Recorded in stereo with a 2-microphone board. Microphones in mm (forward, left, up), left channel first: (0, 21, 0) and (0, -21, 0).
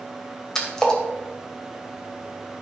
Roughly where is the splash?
Centre.